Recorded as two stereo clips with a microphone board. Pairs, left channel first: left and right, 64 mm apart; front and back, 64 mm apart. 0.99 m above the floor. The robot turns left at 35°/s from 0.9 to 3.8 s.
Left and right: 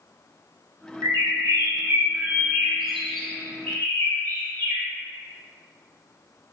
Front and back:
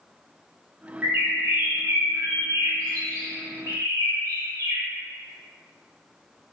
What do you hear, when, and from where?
1.0 s a bird: 115° right, 1.2 m; by 4.8 s 150° left, 1.2 m